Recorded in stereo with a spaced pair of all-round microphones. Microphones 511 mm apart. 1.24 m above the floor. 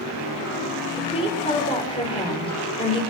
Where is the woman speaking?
10° left (ahead or behind), 6 m.